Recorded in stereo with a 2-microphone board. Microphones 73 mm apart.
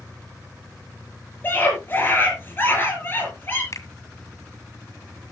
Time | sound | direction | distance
1.4 | a scream | 30° left (ahead or behind) | 9.5 m
3.7 | a finger snap | 45° left (ahead or behind) | 1.7 m